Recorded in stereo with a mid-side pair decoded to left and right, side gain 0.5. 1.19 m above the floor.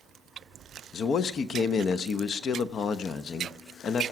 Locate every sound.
0.9 s a man speaking: 50° left, 1.0 m